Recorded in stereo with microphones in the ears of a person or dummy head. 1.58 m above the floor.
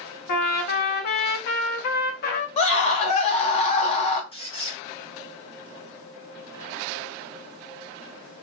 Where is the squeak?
30° left (ahead or behind), 0.7 m.